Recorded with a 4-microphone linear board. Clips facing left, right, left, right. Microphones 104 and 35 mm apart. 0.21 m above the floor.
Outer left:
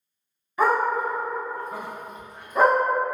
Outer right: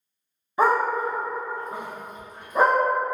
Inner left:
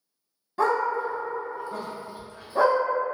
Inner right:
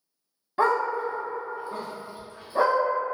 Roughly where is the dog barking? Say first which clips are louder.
Outer right 1 dB, even; right.